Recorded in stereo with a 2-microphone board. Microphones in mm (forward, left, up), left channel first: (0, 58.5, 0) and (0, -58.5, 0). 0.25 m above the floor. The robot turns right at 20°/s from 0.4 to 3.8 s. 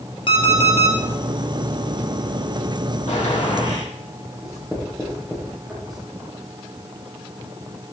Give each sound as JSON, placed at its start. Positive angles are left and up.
{"t": 0.3, "sound": "an alarm clock", "side_deg": 50, "distance_m": 2.5}
{"t": 3.1, "sound": "a gunshot", "side_deg": 75, "distance_m": 6.0}
{"t": 4.4, "sound": "writing", "side_deg": -5, "distance_m": 8.0}